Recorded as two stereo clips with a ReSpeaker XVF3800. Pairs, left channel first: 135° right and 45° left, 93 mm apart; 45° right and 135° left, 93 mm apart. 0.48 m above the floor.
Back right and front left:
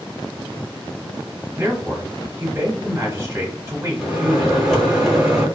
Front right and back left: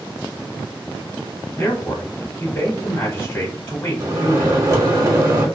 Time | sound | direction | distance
1.6 | a man speaking | 5° left | 1.1 m
4.0 | a microwave | 130° left | 1.1 m